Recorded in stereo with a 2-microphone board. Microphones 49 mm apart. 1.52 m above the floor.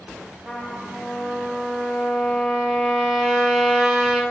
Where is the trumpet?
5° right (ahead or behind), 4 m.